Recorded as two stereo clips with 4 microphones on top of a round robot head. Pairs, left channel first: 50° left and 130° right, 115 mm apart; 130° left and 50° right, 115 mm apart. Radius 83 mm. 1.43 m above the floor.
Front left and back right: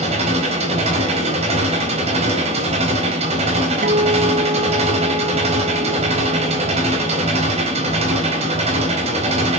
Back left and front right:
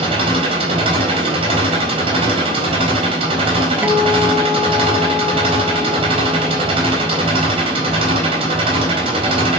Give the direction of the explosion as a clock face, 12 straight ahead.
No explosion in this recording.